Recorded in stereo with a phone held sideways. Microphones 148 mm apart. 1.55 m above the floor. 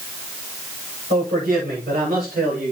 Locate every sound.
1.1 s a man speaking: 75° right (ahead or behind), 8.5 m; by 2.7 s 80° right, 7 m